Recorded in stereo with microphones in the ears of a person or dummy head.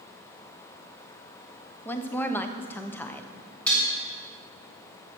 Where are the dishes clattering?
5° left (ahead or behind), 3 m.